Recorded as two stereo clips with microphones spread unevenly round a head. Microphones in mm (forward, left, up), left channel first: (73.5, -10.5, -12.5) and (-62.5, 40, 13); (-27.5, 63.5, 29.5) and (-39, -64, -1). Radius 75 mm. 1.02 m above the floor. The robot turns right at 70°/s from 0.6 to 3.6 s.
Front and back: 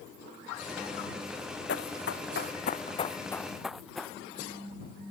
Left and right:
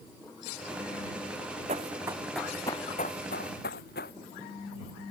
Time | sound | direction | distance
1.7 | running footsteps | 45° right | ?